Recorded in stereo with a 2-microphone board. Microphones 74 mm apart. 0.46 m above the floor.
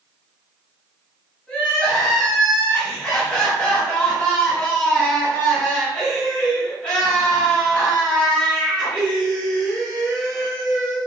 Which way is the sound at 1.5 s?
15° left (ahead or behind).